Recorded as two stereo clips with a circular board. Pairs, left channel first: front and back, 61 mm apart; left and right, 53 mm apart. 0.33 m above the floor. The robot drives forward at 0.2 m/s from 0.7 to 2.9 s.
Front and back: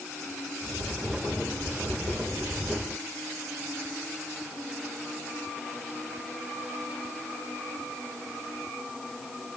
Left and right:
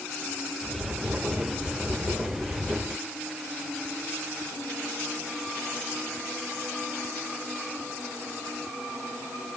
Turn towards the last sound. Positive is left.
No sound to turn to.